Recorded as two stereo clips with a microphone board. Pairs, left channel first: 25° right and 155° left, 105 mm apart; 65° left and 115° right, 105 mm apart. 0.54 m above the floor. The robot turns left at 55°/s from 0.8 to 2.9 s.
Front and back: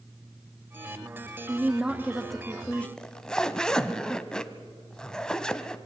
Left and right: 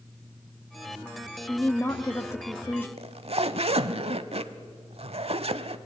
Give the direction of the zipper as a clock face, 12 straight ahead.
3 o'clock.